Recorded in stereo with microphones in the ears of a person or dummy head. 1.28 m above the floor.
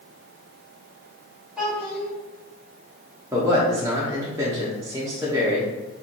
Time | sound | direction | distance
1.6 | a child speaking | centre (ahead or behind) | 1.9 m
3.3 | a man speaking | 10° right (ahead or behind) | 0.7 m